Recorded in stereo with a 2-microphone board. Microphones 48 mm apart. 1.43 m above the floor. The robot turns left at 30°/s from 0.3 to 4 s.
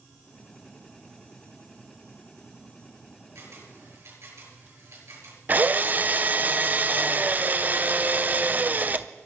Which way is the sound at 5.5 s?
35° right (ahead or behind).